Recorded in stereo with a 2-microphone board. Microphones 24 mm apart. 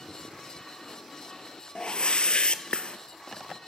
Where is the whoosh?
55° left (ahead or behind), 0.7 m.